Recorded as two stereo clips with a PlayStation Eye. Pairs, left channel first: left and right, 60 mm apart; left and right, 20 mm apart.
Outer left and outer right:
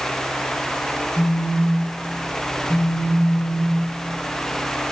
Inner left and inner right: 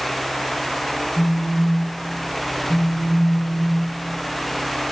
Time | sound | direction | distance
1.2 | a phone buzzing | 5° right (ahead or behind) | 0.7 m